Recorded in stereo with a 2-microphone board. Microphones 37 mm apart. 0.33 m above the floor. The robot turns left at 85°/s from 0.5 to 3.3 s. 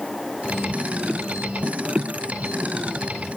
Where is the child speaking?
I don't hear a child speaking.